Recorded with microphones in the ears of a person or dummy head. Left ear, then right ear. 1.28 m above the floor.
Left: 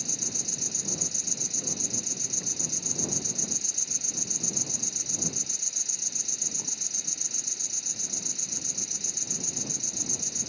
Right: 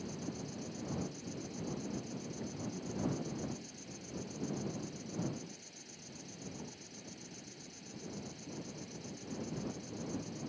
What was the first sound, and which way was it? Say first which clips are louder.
An insect: left 13 dB; 30° left (ahead or behind).